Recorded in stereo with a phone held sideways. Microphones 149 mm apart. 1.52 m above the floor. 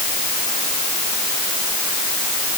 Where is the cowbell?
No cowbell in this recording.